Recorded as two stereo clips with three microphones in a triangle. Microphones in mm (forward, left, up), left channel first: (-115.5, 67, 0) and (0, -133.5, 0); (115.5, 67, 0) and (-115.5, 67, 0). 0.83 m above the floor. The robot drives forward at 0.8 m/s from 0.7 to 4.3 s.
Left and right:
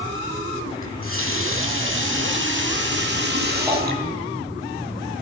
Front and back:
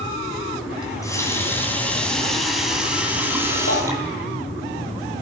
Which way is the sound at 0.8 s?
75° right.